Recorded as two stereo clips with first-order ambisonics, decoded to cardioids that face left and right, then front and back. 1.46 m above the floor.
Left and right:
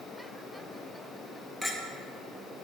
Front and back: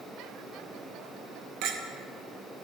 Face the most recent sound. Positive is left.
turn(degrees=175)